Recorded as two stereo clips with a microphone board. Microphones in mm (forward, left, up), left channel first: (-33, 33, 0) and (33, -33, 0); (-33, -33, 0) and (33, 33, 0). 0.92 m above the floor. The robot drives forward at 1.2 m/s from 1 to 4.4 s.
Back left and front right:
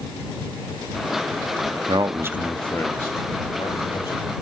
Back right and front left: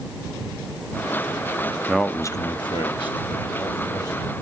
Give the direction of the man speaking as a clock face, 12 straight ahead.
1 o'clock.